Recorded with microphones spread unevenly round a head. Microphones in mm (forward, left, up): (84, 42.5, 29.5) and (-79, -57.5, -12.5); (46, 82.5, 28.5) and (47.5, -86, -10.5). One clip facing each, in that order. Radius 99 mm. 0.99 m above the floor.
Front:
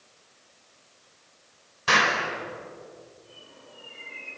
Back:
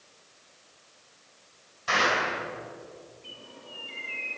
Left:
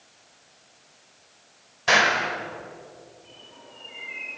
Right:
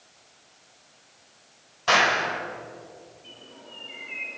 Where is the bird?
155° right, 7.5 m.